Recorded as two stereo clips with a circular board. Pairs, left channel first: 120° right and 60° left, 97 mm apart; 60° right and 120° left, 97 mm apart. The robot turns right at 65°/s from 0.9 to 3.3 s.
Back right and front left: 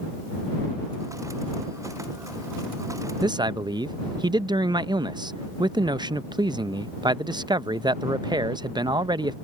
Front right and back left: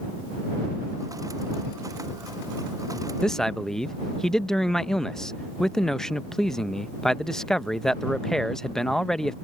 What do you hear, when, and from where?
3.2 s a man speaking: 20° left; by 9.3 s 25° left